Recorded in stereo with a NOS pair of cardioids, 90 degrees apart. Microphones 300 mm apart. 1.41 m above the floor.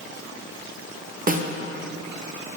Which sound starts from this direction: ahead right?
A snare drum, at 1.3 s.